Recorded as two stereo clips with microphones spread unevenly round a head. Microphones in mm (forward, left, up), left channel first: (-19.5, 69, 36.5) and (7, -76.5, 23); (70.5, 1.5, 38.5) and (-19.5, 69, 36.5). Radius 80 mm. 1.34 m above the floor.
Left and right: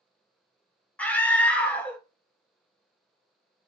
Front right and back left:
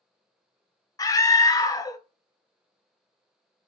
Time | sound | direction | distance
1.0 | a scream | 15° left | 0.8 m